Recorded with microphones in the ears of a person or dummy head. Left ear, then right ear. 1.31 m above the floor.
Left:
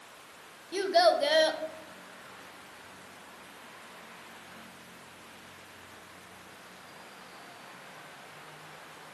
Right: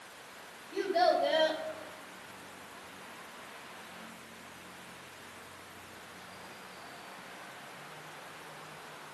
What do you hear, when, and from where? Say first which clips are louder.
0.7 s a child speaking: left 4 dB; 75° left (ahead or behind), 0.9 m